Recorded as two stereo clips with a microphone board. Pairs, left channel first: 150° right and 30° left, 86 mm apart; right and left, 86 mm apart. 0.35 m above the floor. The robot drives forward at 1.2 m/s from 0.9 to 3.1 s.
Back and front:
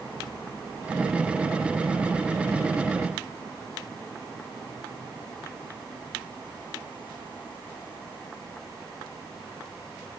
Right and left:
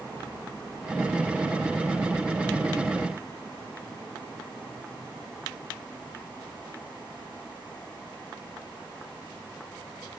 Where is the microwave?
I don't hear a microwave.